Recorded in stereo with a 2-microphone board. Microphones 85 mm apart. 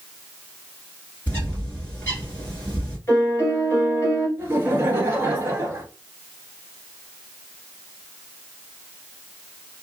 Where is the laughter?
25° right (ahead or behind), 1.4 m.